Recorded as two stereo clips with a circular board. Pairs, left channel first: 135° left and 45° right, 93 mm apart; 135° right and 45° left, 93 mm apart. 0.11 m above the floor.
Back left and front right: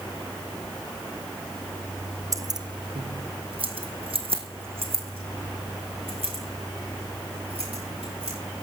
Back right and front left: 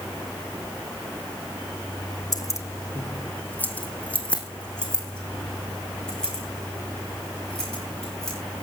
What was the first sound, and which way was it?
Keys jangling, 90° right.